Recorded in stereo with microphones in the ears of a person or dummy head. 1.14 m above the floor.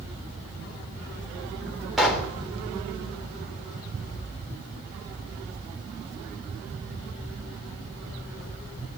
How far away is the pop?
About 3.5 m.